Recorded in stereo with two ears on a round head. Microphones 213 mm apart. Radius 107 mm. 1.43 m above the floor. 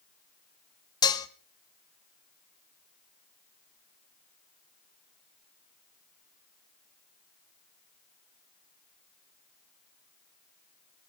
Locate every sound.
1.0 s dishes clattering: 15° left (ahead or behind), 1.0 m